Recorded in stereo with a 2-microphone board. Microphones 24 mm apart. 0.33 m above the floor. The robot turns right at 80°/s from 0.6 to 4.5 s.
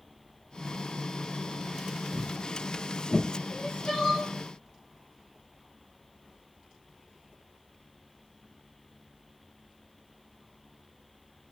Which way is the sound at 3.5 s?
100° left.